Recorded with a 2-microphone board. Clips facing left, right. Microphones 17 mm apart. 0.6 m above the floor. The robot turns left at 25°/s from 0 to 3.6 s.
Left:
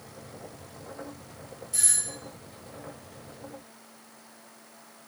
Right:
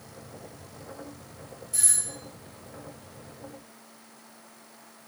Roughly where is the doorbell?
Centre.